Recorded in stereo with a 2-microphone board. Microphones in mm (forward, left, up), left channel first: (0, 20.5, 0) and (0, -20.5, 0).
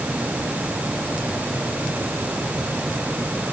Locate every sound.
Only background noise.